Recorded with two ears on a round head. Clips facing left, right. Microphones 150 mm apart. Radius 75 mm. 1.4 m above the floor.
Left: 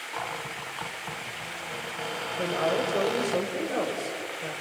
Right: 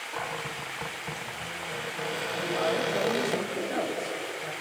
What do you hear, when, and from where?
0.1 s a cupboard door: 10° right (ahead or behind), 1.3 m
2.4 s a woman speaking: 65° left (ahead or behind), 5.5 m